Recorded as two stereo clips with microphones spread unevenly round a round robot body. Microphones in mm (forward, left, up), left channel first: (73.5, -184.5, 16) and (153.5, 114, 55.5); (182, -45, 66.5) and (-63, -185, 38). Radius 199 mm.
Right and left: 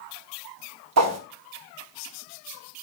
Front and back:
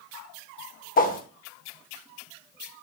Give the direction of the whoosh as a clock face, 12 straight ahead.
9 o'clock.